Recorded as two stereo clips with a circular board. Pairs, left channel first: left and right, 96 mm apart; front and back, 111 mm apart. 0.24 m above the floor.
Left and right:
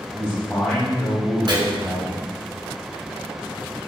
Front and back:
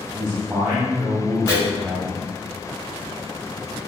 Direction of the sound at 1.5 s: 60° right.